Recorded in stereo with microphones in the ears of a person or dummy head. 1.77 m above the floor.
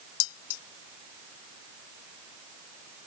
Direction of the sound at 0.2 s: 80° left.